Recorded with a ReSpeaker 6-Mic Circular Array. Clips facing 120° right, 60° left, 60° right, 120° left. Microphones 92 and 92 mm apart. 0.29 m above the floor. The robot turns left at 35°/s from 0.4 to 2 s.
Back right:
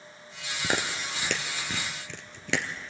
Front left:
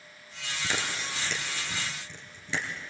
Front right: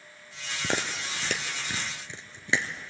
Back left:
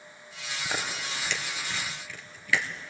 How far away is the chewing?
About 1.5 m.